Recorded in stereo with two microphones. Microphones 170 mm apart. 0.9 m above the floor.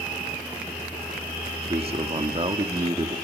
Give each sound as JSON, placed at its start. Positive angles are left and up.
{"t": 1.6, "sound": "a man speaking", "side_deg": -35, "distance_m": 2.0}